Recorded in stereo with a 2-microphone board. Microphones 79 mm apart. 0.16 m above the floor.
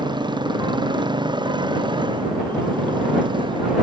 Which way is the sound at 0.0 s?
75° right (ahead or behind).